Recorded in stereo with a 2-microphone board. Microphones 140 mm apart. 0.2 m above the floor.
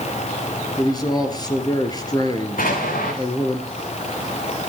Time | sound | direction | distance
0.8 | a man speaking | 30° left (ahead or behind) | 3.5 m
2.6 | an explosion | 85° left | 7.5 m